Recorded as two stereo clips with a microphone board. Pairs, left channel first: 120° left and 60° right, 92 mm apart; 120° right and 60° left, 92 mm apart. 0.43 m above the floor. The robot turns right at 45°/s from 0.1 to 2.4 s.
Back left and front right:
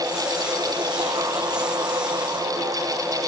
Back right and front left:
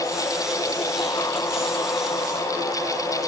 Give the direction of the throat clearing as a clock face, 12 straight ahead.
No throat clearing in this recording.